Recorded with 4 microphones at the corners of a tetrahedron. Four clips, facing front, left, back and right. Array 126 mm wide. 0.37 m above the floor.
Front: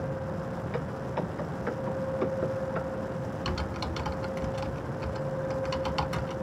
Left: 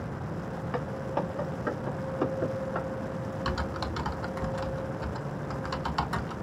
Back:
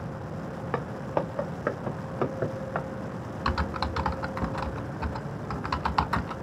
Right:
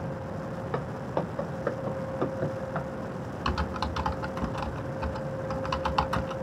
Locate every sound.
0.7 s footsteps: 170° right, 1.9 m
3.5 s typing on a keyboard: 155° right, 0.5 m